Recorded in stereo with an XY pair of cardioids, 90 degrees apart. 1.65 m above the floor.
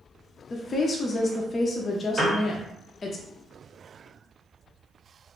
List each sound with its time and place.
0.5 s a woman speaking: 40° left, 0.5 m
2.2 s a piano: 30° right, 1.5 m